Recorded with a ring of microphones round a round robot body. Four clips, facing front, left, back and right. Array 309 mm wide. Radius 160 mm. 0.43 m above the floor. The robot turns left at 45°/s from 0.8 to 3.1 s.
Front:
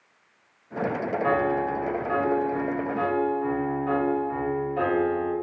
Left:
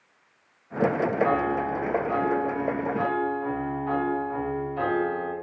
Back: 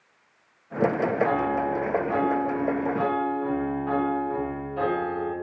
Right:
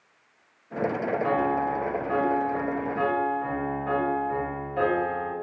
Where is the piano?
15° left, 1.5 m; by 5.3 s 70° right, 1.5 m.